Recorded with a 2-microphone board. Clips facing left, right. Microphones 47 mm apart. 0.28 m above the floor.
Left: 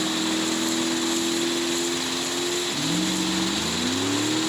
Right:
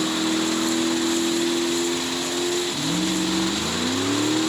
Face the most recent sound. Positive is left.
turn(degrees=-35)  # may be behind; listen again after turning